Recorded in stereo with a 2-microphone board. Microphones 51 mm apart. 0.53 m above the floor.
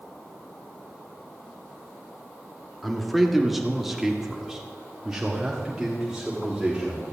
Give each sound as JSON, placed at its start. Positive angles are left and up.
{"t": 2.8, "sound": "a man speaking", "side_deg": 0, "distance_m": 1.7}